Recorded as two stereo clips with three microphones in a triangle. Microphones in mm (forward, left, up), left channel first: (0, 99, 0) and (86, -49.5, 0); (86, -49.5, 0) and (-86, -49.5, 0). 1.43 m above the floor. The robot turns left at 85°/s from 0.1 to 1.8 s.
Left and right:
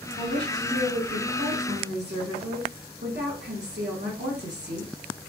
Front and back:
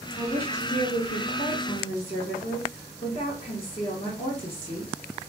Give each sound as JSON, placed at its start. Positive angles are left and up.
{"t": 0.2, "sound": "a woman speaking", "azimuth_deg": 80, "distance_m": 1.7}